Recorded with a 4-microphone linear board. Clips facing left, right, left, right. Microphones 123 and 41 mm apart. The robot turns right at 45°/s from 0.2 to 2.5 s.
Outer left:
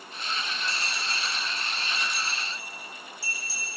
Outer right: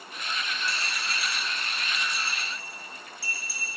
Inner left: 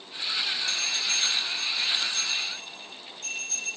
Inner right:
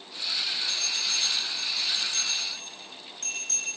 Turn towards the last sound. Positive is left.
turn(degrees=-65)  # may be behind; listen again after turning